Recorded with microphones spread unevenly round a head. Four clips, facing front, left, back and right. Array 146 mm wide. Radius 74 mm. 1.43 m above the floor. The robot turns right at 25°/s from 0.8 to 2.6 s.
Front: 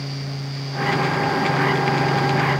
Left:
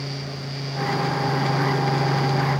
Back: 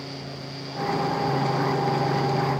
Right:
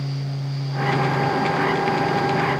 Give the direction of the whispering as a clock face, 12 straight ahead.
No whispering in this recording.